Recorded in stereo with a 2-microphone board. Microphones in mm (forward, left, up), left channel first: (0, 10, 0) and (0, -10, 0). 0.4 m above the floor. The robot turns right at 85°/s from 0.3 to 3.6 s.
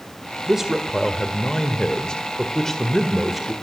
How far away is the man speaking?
About 1.7 m.